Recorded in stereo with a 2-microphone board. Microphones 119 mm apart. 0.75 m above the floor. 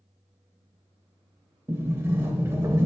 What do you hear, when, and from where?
1.7 s a sliding door: 20° right (ahead or behind), 0.5 m